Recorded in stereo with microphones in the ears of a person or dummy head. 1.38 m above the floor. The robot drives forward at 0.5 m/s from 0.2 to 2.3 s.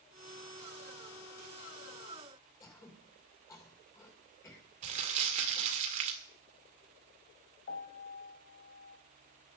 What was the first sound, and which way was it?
Throat clearing, 20° left (ahead or behind).